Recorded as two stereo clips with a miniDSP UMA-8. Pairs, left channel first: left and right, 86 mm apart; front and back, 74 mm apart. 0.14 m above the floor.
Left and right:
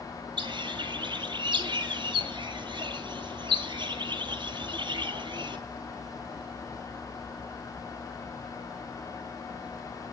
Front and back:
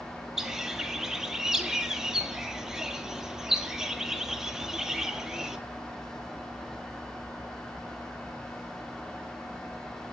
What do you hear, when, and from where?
0.4 s a bird: 95° right, 0.7 m